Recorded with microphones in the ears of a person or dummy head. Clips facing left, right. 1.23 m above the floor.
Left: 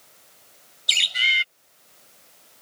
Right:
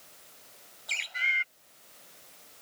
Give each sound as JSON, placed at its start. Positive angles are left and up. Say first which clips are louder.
{"t": 0.9, "sound": "a bird", "louder": "left 6 dB", "side_deg": 50}